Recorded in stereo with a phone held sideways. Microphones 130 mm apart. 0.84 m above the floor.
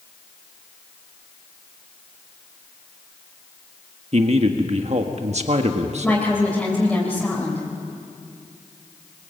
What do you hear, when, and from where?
4.1 s a man speaking: 55° right (ahead or behind), 1.5 m
6.0 s a woman speaking: 5° left (ahead or behind), 3.5 m